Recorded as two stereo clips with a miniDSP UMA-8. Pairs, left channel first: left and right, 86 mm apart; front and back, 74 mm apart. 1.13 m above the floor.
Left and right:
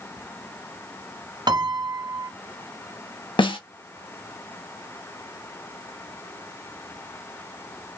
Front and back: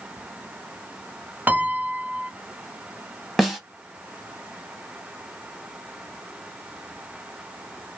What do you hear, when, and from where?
1.5 s a piano: 115° right, 0.6 m
3.4 s a snare drum: 95° left, 0.8 m